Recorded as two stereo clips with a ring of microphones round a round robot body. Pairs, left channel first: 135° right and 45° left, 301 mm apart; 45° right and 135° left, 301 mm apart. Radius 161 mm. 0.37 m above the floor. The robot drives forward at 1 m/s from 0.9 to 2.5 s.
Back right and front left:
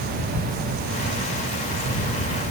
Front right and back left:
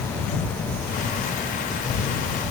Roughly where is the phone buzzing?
No phone buzzing in this recording.